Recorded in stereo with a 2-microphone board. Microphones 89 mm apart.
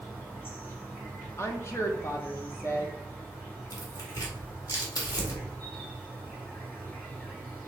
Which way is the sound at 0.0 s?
25° left (ahead or behind).